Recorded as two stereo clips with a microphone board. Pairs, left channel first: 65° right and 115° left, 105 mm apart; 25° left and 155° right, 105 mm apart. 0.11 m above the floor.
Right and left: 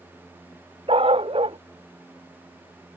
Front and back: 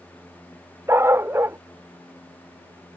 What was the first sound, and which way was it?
A dog barking, 135° left.